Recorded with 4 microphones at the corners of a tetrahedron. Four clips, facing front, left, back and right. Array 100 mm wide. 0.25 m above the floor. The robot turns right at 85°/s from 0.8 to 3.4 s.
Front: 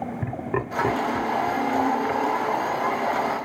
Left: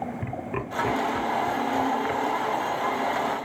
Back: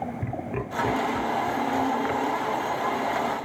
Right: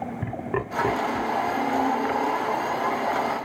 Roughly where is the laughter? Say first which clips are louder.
Right 3 dB, front 4 dB; ahead right.